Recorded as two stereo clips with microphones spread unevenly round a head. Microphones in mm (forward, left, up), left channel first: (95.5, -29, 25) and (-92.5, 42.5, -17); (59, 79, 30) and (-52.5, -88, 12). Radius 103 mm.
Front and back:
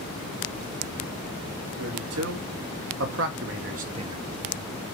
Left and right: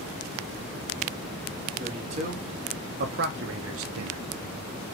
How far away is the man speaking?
About 3 m.